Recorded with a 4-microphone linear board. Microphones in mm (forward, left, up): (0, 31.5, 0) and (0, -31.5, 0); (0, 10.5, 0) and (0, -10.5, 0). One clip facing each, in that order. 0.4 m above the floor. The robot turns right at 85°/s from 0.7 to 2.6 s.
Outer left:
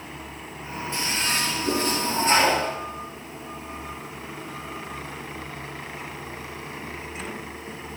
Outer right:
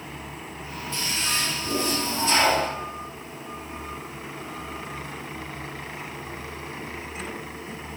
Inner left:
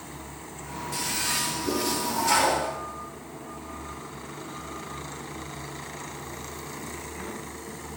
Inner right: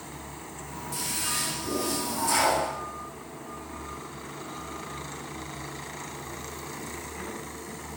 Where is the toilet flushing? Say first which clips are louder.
Outer left 2 dB, inner left 3 dB; 15° left, 7 m; by 2.7 s 160° left, 7 m.